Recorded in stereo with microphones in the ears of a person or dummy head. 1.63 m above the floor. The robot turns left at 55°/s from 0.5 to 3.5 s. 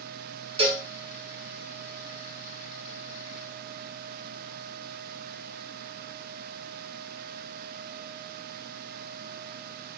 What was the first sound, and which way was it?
A cowbell, 30° right (ahead or behind).